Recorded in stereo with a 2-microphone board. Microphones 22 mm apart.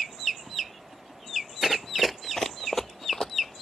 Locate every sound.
1.6 s running footsteps: 20° right (ahead or behind); by 3.5 s 30° left (ahead or behind)